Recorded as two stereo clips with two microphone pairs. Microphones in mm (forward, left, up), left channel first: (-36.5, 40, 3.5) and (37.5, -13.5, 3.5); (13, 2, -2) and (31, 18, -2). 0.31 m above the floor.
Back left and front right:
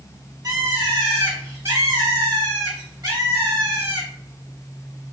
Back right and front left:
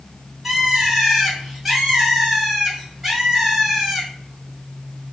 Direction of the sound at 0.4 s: 30° right.